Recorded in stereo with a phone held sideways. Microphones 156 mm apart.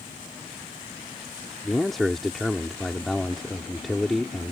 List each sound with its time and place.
1.6 s a man speaking: centre (ahead or behind)